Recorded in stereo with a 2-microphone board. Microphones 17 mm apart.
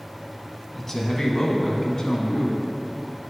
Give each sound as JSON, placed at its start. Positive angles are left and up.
{"t": 0.8, "sound": "a man speaking", "side_deg": 20, "distance_m": 1.0}